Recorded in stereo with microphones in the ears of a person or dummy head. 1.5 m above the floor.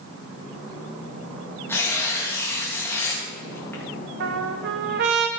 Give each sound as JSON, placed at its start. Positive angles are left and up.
{"t": 1.7, "sound": "tearing paper", "side_deg": 10, "distance_m": 3.0}
{"t": 4.2, "sound": "a trumpet", "side_deg": -60, "distance_m": 1.3}